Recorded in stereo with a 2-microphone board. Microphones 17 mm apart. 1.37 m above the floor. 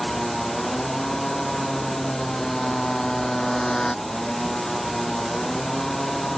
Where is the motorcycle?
30° left (ahead or behind).